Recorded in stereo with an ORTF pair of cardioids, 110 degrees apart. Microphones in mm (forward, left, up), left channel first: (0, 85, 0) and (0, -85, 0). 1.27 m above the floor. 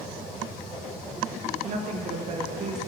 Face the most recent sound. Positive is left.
turn(degrees=-50)